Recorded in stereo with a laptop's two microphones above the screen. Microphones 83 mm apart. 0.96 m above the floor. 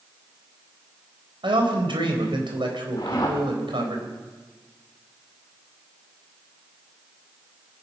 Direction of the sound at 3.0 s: 60° left (ahead or behind).